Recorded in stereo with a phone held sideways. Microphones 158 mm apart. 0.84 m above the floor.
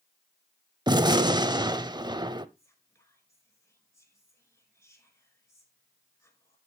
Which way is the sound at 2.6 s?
20° left (ahead or behind).